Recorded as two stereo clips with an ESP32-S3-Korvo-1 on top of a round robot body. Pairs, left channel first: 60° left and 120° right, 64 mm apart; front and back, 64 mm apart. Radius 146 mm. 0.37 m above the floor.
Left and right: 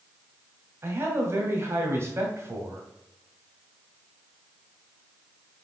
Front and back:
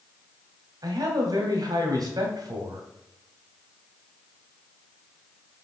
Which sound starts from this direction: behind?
A man speaking, at 0.8 s.